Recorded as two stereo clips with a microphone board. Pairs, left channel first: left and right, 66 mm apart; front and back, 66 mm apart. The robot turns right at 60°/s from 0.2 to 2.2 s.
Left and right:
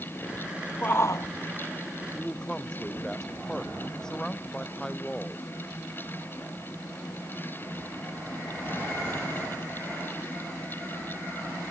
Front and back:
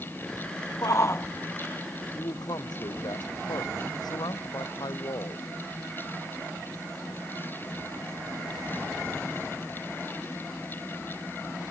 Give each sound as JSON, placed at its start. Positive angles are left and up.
{"t": 0.8, "sound": "a shout", "azimuth_deg": 30}
{"t": 2.1, "sound": "a man speaking", "azimuth_deg": 5}